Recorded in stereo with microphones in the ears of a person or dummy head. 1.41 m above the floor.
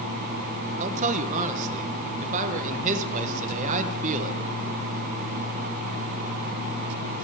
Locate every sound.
0.8 s a man speaking: 40° right (ahead or behind), 0.9 m